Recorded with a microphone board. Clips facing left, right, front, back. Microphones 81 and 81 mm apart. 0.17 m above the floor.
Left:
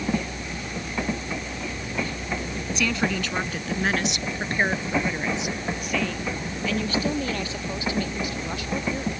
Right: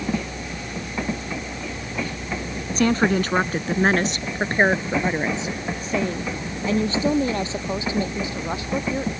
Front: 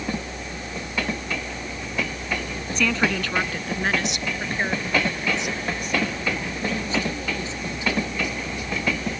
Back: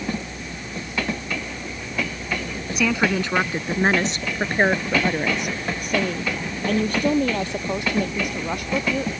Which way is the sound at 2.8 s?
100° right.